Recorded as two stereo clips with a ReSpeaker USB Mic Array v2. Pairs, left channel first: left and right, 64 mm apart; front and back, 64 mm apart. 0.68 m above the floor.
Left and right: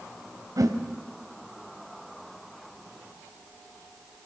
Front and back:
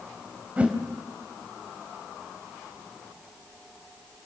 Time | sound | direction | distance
0.6 | a whoosh | 110° right | 2.0 m